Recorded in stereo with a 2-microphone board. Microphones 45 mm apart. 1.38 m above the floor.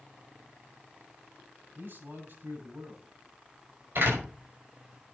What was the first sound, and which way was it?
A man speaking, 55° right (ahead or behind).